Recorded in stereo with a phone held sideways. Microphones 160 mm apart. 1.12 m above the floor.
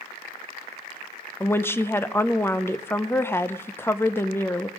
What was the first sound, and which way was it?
A woman speaking, 15° left (ahead or behind).